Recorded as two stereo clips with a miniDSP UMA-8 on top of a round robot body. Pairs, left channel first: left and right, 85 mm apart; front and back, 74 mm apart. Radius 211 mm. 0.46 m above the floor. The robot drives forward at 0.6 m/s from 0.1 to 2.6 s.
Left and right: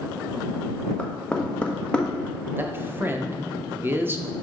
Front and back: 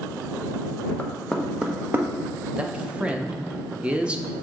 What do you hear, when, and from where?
1.0 s knocking: 30° left, 0.9 m; by 2.1 s 160° left, 0.9 m
2.6 s a man speaking: 115° right, 0.7 m; by 4.2 s 120° right, 0.7 m